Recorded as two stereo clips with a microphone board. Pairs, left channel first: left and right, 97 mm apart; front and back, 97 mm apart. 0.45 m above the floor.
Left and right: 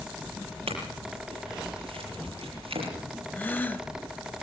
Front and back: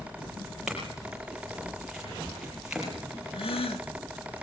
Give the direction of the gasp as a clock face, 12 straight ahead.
11 o'clock.